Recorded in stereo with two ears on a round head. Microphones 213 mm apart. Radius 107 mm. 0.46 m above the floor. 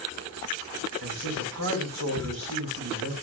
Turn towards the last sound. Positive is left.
turn(degrees=-65)  # may be behind; listen again after turning